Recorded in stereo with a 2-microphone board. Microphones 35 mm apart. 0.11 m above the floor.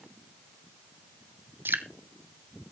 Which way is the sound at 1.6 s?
80° right.